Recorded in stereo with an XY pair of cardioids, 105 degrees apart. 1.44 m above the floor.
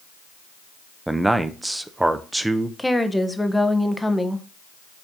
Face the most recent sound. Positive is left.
turn(degrees=10)